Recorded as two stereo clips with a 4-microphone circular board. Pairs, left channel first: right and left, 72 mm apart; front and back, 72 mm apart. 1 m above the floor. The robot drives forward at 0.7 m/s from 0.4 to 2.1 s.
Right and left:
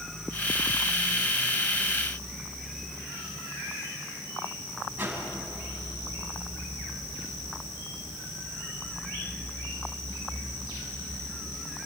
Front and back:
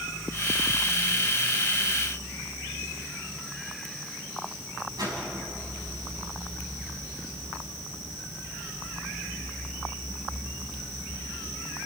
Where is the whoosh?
155° left, 6 m.